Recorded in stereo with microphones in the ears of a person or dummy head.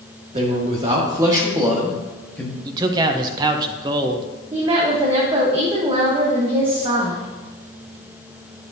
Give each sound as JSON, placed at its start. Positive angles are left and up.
{"t": 0.3, "sound": "a man speaking", "side_deg": -35, "distance_m": 1.9}
{"t": 2.6, "sound": "a man speaking", "side_deg": -25, "distance_m": 0.8}
{"t": 4.5, "sound": "a woman speaking", "side_deg": -25, "distance_m": 1.2}